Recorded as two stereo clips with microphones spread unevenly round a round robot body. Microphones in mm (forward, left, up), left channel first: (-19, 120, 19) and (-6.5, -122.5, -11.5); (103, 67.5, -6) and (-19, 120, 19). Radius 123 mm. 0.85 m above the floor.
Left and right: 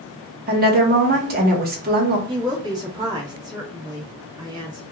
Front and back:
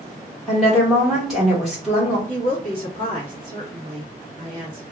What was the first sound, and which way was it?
A woman speaking, 105° right.